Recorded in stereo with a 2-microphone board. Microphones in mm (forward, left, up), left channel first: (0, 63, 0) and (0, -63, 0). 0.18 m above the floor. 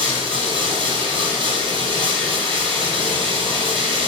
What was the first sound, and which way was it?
Running water, 45° right (ahead or behind).